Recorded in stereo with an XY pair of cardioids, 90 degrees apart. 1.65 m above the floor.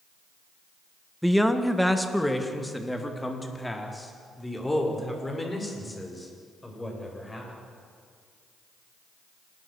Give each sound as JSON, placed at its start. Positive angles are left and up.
{"t": 1.2, "sound": "a man speaking", "azimuth_deg": -5, "distance_m": 1.9}